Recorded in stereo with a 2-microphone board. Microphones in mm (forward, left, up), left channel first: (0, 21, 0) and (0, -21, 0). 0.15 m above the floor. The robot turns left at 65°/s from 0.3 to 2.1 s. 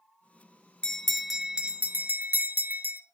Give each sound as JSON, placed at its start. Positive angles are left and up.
{"t": 0.8, "sound": "a bell", "azimuth_deg": 25, "distance_m": 0.7}